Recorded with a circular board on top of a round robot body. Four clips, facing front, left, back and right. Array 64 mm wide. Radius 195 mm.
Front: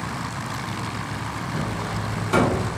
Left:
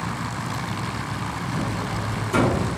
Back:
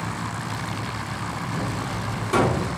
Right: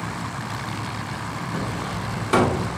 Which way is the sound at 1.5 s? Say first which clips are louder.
Left 1 dB, front 2 dB; 75° right.